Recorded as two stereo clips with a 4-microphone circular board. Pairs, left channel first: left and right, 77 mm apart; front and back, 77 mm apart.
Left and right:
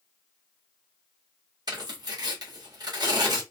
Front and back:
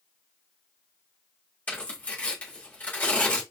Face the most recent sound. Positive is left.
turn(degrees=-65)